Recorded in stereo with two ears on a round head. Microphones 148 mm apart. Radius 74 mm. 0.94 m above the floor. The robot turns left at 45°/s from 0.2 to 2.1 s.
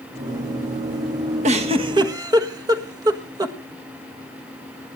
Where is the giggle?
45° right (ahead or behind), 1.4 m; by 3.6 s 25° right (ahead or behind), 1.4 m.